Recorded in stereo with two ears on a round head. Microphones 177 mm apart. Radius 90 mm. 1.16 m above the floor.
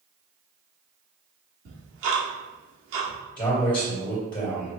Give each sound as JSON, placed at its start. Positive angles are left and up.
{"t": 1.6, "sound": "ticking", "side_deg": -65, "distance_m": 1.2}
{"t": 3.4, "sound": "a man speaking", "side_deg": 20, "distance_m": 2.0}